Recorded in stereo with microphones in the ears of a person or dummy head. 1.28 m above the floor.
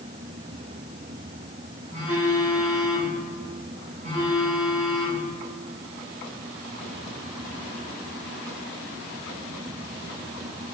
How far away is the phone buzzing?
About 2.5 m.